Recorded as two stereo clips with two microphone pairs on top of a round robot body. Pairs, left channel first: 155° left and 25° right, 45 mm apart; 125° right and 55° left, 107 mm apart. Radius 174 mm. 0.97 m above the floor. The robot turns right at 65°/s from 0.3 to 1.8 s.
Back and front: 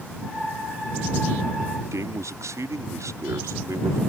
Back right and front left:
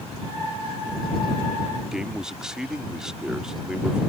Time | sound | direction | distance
1.9 | a man speaking | 30° right | ?